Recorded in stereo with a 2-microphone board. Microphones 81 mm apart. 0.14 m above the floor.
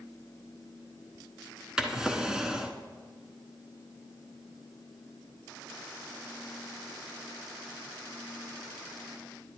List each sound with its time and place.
1.8 s a drawer: 10° right (ahead or behind), 1.0 m